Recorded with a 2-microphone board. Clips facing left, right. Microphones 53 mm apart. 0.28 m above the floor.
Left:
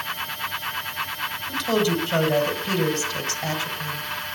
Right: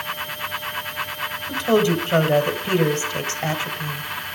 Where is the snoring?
I don't hear snoring.